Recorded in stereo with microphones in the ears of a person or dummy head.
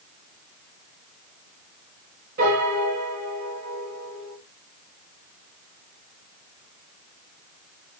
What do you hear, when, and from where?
2.4 s a piano: 40° right (ahead or behind), 2.5 m